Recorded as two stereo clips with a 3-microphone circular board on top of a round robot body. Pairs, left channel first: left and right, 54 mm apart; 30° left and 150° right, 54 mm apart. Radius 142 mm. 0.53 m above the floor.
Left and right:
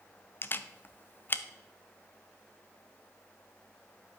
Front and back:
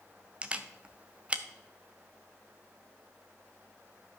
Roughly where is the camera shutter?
Behind left.